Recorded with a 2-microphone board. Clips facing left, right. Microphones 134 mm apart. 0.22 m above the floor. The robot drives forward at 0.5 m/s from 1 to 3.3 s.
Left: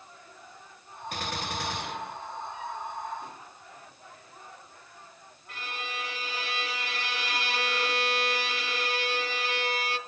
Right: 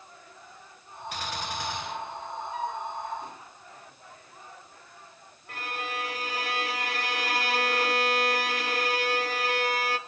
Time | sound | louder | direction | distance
1.1 | a gunshot | even | 50° left (ahead or behind) | 1.4 m
2.5 | a flute | right 5 dB | 90° right | 1.3 m
5.5 | a violin | right 4 dB | 50° right (ahead or behind) | 0.6 m